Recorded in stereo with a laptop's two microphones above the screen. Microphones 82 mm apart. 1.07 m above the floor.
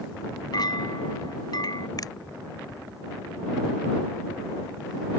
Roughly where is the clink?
Left.